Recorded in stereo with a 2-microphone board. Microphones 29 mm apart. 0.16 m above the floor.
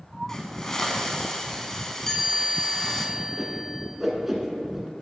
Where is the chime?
10° left (ahead or behind), 1.4 m.